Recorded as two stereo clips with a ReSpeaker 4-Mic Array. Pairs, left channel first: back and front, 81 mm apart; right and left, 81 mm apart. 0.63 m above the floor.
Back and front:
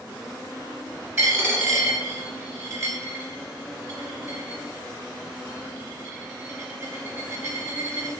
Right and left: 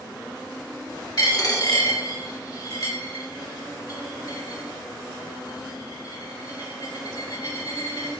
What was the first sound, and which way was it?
A dropped coin, 55° right.